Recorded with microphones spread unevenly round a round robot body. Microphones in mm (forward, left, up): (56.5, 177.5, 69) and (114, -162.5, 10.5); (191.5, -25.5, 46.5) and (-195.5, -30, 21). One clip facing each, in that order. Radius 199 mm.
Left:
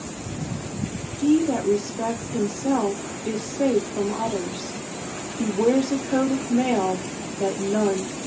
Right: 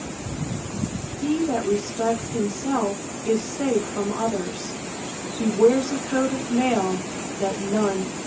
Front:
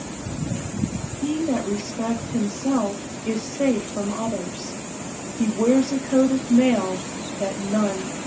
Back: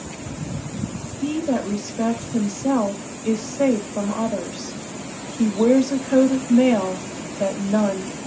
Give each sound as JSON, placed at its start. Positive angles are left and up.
{"t": 1.2, "sound": "a woman speaking", "azimuth_deg": -170, "distance_m": 1.7}